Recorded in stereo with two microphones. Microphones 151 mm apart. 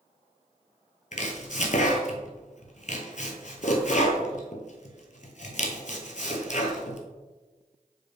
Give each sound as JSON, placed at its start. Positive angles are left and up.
{"t": 1.1, "sound": "chopping", "side_deg": 55, "distance_m": 0.7}